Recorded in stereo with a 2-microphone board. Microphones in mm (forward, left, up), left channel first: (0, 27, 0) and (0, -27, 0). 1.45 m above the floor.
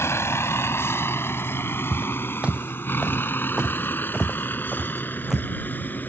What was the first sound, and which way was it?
A vehicle, 55° left (ahead or behind).